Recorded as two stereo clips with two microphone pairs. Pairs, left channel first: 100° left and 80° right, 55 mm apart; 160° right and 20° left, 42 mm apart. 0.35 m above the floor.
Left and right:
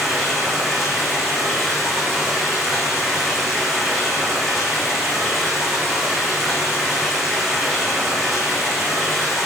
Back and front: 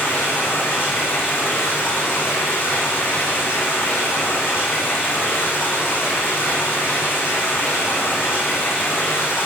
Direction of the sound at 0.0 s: 170° right.